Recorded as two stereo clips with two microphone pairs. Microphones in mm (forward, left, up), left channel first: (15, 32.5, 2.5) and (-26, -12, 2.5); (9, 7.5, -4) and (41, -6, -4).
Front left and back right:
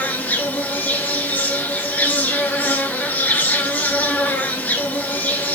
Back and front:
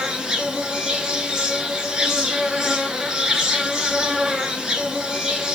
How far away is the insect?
About 0.8 m.